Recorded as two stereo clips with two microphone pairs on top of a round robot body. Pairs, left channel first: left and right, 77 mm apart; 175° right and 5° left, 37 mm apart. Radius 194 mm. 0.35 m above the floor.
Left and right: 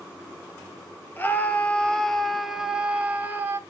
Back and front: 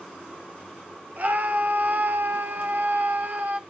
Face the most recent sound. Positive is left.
turn(degrees=-25)